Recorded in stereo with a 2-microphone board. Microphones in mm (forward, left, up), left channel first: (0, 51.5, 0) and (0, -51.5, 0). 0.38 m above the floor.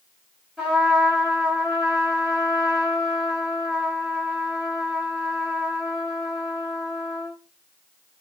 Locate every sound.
0.6 s a trumpet: 5° right (ahead or behind), 1.6 m